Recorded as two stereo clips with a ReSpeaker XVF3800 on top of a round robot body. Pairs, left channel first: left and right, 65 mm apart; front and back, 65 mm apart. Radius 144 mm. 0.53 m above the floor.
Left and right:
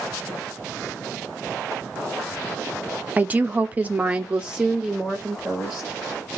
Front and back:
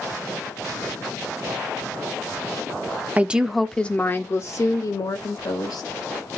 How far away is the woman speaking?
About 0.7 m.